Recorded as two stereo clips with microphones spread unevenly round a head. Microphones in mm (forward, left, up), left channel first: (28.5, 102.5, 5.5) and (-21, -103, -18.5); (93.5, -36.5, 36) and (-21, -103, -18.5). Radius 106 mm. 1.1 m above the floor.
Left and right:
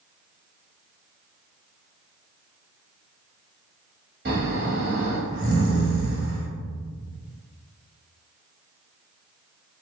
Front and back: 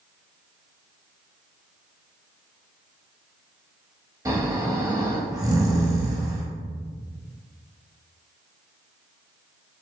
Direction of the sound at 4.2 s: 75° right.